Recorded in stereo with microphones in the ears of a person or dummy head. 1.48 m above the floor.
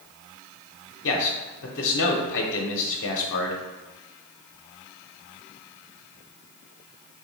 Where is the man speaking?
70° left (ahead or behind), 0.9 m.